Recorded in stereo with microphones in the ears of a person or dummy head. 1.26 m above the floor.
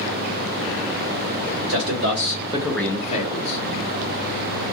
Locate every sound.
1.7 s a man speaking: 75° right (ahead or behind), 1.6 m; by 3.6 s 55° left (ahead or behind), 1.5 m